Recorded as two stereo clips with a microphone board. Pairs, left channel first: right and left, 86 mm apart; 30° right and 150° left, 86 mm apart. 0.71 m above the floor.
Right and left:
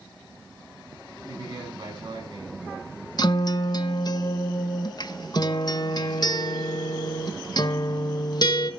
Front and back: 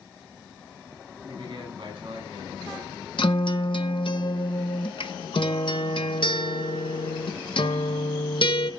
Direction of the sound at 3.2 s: 50° right.